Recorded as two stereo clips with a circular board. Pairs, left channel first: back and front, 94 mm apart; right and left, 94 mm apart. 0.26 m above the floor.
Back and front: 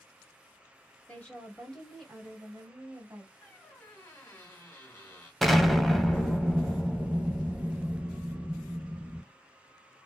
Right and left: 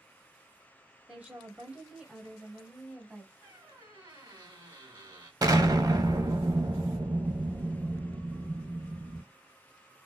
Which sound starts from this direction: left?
An explosion, at 5.4 s.